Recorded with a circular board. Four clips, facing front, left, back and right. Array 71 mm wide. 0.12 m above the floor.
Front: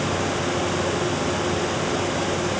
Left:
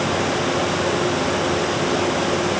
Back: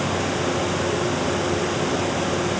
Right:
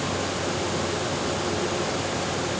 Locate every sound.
Only background noise.